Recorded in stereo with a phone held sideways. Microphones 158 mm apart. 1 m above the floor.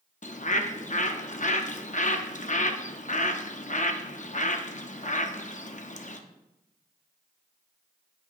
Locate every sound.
0.2 s a bird: 50° left (ahead or behind), 0.6 m